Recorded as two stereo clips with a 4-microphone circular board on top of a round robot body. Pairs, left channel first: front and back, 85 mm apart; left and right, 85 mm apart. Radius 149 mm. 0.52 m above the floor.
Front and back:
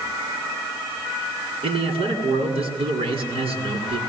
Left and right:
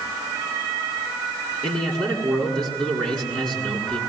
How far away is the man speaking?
About 8.5 m.